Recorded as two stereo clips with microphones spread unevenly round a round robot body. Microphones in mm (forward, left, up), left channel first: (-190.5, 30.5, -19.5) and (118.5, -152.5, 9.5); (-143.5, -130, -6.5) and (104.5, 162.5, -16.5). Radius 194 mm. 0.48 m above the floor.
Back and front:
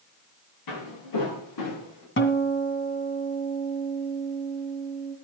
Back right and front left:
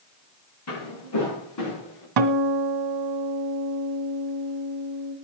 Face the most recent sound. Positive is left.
turn(degrees=85)